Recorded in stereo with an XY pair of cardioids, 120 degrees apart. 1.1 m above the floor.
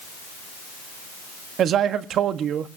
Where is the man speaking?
60° right, 1.4 m.